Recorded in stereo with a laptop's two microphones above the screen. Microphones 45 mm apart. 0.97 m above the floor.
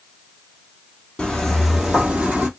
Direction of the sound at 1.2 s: 15° left (ahead or behind).